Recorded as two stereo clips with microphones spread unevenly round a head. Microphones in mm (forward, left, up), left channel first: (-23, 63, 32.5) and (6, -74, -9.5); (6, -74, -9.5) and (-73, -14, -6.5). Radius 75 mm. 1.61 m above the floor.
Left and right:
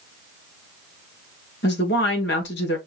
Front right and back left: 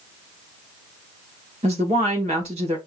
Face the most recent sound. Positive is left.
turn(degrees=95)